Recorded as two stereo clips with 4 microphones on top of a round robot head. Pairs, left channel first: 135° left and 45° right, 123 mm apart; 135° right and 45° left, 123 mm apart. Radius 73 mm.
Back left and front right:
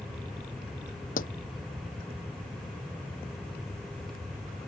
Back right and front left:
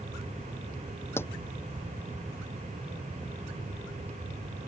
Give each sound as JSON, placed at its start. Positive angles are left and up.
{"t": 1.2, "sound": "a pop", "azimuth_deg": 155}